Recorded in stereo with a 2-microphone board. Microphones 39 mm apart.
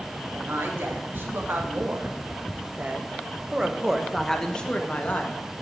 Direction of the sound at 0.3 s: 70° right (ahead or behind).